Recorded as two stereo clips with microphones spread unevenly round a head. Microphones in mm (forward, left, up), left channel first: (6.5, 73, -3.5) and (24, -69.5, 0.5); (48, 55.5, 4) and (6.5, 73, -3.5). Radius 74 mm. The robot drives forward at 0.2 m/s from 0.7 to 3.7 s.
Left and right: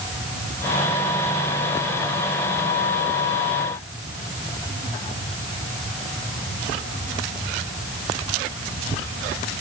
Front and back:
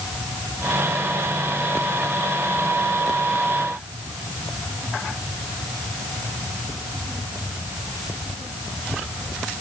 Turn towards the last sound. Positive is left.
No sound to turn to.